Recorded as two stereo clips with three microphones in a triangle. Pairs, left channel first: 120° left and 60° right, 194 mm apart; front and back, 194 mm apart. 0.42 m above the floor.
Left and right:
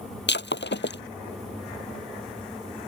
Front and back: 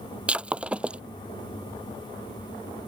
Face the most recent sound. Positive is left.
turn(degrees=95)